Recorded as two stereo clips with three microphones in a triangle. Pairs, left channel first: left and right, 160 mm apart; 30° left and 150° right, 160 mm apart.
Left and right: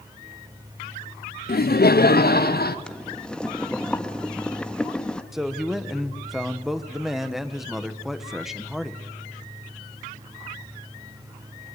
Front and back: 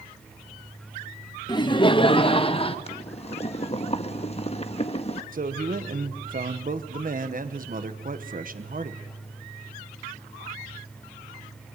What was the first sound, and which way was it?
Laughter, 90° left.